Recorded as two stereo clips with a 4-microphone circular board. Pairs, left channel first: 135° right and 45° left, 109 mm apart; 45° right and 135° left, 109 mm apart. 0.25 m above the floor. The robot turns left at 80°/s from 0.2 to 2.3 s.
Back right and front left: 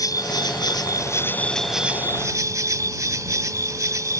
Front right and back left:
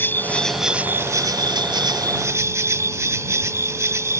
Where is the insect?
105° right; by 4.2 s 85° left.